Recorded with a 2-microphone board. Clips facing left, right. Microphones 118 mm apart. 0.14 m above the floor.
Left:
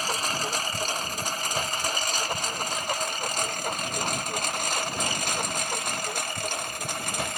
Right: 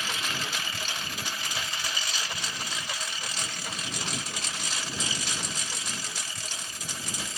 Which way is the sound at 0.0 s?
40° left (ahead or behind).